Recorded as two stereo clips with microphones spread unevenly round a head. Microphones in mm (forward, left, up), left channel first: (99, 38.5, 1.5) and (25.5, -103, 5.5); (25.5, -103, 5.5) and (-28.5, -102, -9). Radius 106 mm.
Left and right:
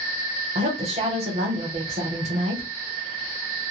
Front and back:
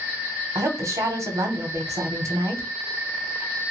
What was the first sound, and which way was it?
A woman speaking, straight behind.